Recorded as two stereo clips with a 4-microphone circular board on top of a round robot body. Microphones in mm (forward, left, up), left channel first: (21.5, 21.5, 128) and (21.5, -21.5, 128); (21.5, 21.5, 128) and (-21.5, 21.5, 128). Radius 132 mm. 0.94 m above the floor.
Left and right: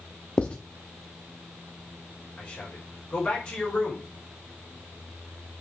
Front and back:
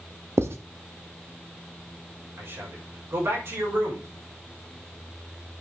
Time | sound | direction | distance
0.4 | writing | 160° left | 0.7 m
2.4 | a man speaking | 160° left | 5.5 m